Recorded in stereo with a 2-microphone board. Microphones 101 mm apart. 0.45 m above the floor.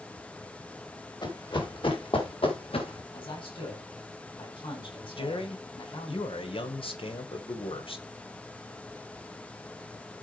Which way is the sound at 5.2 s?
65° left (ahead or behind).